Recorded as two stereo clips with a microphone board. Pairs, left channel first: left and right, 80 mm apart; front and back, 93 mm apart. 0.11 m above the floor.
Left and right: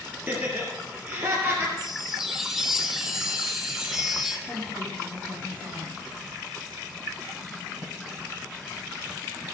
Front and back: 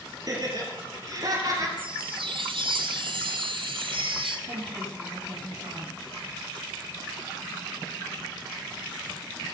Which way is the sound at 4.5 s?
160° right.